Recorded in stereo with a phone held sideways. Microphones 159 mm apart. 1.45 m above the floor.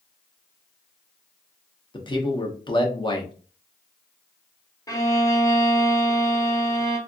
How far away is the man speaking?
About 0.8 m.